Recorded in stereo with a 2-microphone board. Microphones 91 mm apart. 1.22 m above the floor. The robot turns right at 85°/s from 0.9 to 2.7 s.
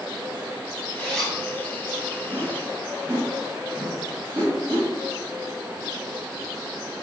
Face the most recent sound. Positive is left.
turn(degrees=-65)  # may be behind; listen again after turning